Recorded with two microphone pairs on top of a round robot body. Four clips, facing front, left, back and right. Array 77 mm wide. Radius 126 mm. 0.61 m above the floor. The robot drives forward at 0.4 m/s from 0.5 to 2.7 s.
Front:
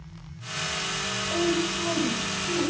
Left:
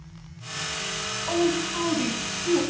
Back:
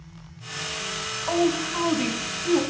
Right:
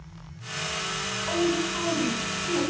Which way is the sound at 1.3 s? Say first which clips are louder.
Left 2 dB, back 3 dB; 175° right.